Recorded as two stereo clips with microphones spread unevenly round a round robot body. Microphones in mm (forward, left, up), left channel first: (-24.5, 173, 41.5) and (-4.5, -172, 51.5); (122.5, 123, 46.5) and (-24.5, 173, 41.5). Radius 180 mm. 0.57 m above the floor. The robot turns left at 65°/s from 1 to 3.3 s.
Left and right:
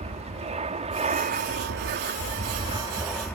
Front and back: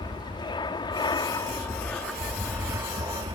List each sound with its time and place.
0.0 s an aircraft: 35° right; by 3.4 s 175° left